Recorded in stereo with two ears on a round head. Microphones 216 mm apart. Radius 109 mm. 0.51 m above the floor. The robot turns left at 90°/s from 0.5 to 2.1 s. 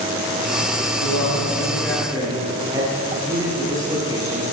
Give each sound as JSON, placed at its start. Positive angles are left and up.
{"t": 1.0, "sound": "a man speaking", "azimuth_deg": 85, "distance_m": 10.0}